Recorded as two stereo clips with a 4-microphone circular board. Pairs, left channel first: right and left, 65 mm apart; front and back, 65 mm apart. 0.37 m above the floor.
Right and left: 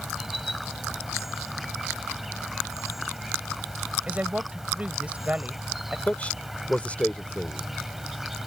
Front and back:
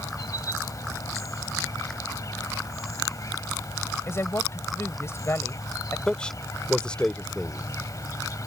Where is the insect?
5° left.